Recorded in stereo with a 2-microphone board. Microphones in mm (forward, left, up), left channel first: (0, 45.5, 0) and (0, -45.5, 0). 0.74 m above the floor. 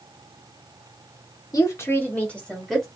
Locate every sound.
1.5 s a woman speaking: 40° left (ahead or behind), 1.4 m; by 2.9 s 5° left (ahead or behind), 2 m